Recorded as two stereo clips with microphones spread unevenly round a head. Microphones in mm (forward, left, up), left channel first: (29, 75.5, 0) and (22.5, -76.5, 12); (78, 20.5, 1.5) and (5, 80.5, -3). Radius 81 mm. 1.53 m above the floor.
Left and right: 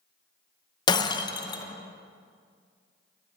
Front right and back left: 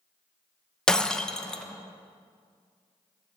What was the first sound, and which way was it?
Breaking glass, 35° left.